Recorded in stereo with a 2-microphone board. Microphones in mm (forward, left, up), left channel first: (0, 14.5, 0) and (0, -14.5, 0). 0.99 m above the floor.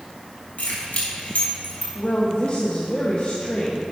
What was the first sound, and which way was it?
Keys jangling, 70° left (ahead or behind).